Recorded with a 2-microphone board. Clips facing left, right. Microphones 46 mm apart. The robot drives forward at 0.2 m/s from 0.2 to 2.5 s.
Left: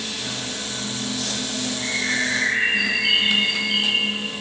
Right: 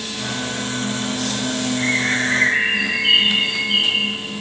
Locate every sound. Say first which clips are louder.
1.8 s a bird: right 4 dB; 60° right (ahead or behind), 0.9 m; by 4.2 s 50° right (ahead or behind), 1.0 m